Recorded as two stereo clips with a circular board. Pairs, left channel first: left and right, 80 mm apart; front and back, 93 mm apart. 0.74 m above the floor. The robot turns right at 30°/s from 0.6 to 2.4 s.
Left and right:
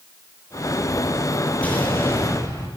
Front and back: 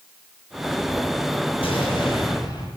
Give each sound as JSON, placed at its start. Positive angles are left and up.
{"t": 1.6, "sound": "an explosion", "azimuth_deg": 15, "distance_m": 9.5}